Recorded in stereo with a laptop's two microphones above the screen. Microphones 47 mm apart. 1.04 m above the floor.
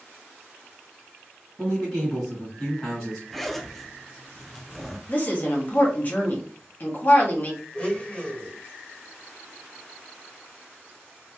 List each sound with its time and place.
1.6 s a man speaking: 5° left (ahead or behind), 1.3 m
3.3 s a zipper: 5° left (ahead or behind), 0.6 m
5.1 s a woman speaking: 40° left (ahead or behind), 0.8 m
7.7 s a blender: 35° left (ahead or behind), 1.4 m